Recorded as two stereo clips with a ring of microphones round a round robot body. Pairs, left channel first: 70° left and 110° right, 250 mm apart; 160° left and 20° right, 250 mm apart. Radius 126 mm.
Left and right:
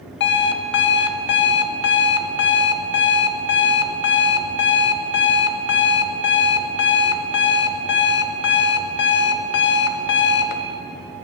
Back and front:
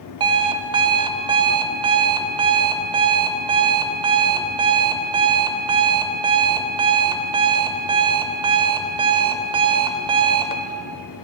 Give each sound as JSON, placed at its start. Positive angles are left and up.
{"t": 0.2, "sound": "an alarm clock", "azimuth_deg": 45, "distance_m": 0.7}